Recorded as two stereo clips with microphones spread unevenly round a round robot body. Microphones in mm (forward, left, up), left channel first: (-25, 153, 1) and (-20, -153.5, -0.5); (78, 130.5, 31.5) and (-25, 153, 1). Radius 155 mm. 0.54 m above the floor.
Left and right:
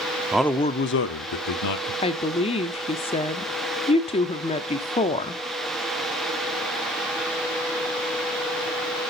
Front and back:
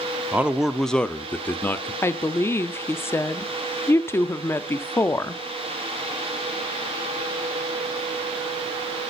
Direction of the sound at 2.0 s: 60° left.